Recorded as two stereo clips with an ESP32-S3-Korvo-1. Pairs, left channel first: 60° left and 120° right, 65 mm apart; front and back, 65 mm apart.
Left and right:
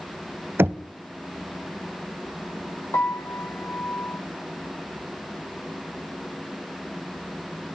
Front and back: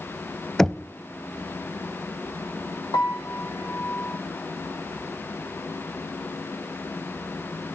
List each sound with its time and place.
0.6 s knocking: 80° right, 0.8 m
2.9 s a piano: 15° left, 3 m